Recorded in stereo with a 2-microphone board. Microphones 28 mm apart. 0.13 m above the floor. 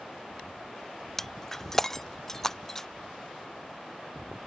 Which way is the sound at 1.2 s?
15° left (ahead or behind).